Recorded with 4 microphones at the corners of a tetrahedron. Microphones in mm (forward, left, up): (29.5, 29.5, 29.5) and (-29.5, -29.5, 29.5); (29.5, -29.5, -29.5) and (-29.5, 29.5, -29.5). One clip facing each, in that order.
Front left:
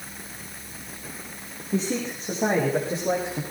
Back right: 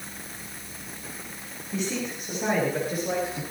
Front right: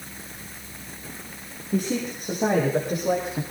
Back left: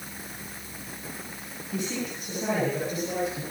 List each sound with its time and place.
1.7 s a man speaking: 10° right, 9.5 m; by 3.4 s 20° right, 11 m